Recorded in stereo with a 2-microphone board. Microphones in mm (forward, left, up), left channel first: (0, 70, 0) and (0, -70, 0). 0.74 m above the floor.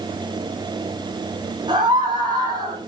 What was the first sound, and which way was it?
A scream, 30° right (ahead or behind).